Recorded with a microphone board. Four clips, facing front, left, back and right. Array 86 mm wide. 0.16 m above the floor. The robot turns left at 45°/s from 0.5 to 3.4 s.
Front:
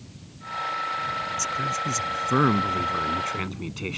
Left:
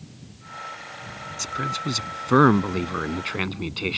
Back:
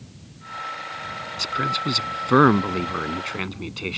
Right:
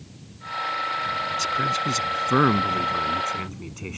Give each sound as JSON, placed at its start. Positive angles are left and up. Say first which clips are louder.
{"t": 1.4, "sound": "a man speaking", "louder": "right 1 dB, back 7 dB", "azimuth_deg": -165}